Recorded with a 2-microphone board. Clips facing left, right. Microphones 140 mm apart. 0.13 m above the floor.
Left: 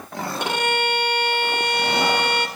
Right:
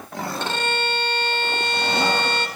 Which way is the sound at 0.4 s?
15° left (ahead or behind).